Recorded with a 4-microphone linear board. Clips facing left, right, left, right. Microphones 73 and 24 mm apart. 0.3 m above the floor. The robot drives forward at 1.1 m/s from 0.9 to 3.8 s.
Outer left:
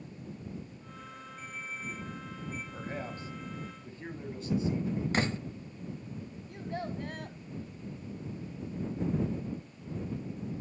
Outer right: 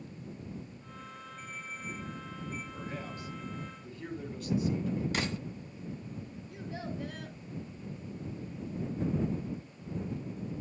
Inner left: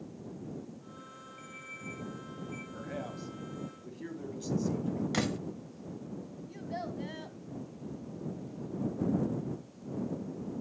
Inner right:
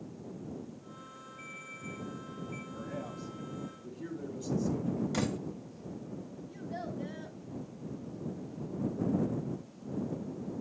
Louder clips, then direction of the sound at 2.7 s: Outer left 2 dB, inner left 2 dB; 40° left (ahead or behind).